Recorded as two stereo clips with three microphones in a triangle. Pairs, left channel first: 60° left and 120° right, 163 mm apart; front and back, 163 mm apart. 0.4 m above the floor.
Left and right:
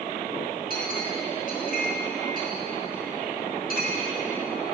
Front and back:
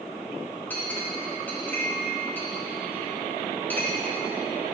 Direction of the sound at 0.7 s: 80° left.